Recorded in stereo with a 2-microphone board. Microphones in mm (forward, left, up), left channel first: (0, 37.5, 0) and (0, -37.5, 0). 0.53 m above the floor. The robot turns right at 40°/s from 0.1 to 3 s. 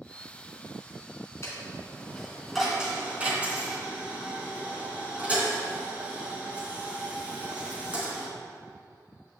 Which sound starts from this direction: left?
A dropped coin, at 1.4 s.